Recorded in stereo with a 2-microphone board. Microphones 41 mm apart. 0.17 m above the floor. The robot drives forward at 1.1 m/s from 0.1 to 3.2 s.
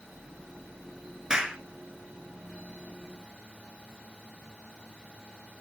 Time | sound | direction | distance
1.3 | a clap | 15° right (ahead or behind) | 2 m